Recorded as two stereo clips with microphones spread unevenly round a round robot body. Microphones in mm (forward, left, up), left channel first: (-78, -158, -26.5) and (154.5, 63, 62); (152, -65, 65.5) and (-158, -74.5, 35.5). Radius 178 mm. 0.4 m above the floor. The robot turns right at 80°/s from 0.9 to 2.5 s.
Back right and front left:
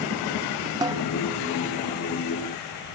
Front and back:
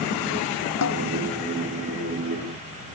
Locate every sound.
0.8 s a snare drum: 35° right; by 1.0 s 25° right